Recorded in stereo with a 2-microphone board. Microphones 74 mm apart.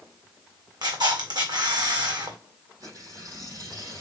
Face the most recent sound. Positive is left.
turn(degrees=-55)  # may be behind; listen again after turning